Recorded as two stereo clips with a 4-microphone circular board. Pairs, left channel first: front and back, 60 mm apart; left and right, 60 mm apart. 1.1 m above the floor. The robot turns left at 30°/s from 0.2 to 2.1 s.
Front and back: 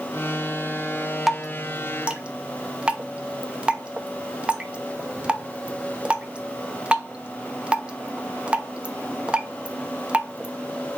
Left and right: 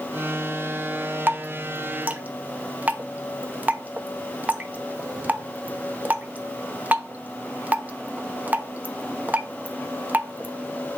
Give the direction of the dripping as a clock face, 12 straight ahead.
3 o'clock.